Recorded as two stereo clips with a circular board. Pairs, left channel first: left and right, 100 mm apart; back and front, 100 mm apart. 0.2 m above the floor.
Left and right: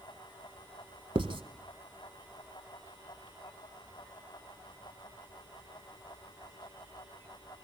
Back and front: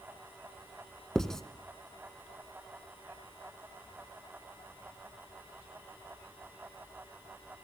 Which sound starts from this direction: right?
Writing, at 1.1 s.